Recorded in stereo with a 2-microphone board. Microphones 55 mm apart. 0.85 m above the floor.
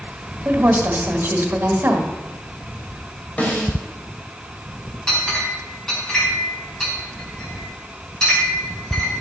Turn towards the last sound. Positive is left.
turn(degrees=10)  # may be behind; listen again after turning